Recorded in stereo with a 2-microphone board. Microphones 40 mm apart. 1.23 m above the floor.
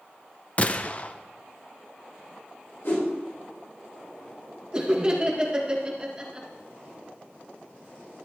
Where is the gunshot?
35° left (ahead or behind), 0.5 m.